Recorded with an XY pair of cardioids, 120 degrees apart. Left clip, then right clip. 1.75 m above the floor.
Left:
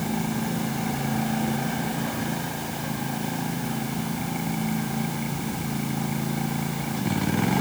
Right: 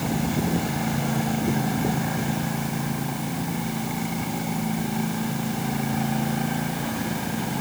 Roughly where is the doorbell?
I don't hear a doorbell.